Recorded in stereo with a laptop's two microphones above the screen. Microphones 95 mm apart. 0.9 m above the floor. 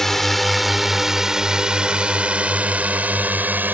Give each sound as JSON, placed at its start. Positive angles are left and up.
{"t": 0.0, "sound": "a drone", "side_deg": 0}